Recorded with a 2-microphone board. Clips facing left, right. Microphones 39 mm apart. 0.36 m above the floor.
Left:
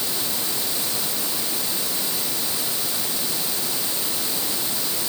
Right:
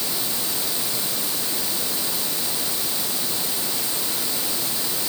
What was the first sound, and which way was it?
Only background noise.